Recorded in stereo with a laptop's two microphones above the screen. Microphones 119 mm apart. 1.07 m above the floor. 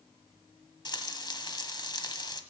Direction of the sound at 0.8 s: 40° left (ahead or behind).